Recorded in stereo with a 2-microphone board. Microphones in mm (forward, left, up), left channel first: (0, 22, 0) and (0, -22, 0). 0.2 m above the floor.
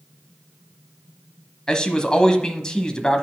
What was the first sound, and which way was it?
A man speaking, 20° left (ahead or behind).